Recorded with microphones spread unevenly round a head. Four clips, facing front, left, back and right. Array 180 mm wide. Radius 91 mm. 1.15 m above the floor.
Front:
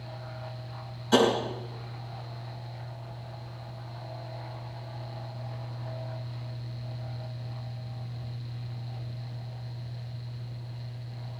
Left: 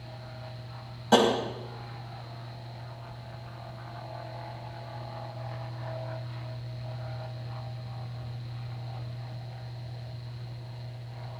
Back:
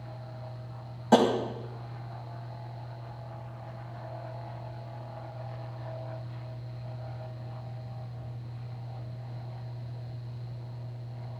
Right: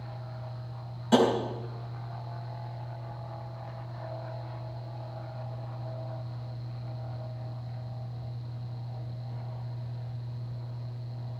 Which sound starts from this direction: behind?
Tapping, at 1.1 s.